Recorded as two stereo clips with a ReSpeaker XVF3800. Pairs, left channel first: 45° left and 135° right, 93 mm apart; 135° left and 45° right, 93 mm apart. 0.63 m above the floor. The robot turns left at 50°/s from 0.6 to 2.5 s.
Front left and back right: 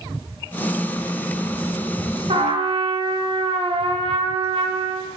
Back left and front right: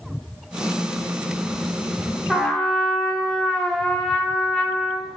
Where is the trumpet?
135° right, 0.5 m; by 5.1 s 145° right, 0.5 m.